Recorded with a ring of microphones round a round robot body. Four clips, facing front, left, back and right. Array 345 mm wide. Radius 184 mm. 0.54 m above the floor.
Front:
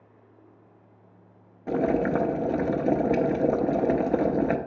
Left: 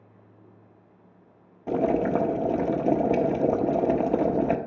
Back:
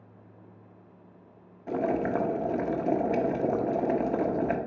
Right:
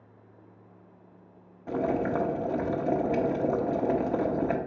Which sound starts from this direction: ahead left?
Boiling, at 1.7 s.